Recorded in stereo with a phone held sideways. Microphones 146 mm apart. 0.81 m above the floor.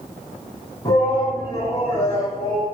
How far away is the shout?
About 7 m.